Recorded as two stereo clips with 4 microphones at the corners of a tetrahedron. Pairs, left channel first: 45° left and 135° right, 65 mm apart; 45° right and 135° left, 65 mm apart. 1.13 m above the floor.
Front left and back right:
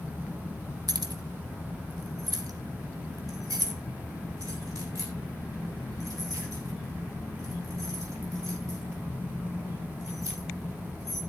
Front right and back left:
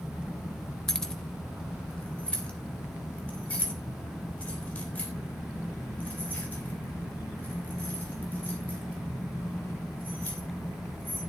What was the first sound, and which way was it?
Keys jangling, 125° right.